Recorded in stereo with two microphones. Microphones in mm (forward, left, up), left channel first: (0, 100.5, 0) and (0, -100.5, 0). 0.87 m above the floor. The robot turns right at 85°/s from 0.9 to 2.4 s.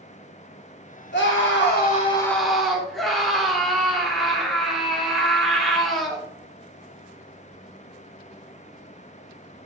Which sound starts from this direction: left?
A scream, at 1.1 s.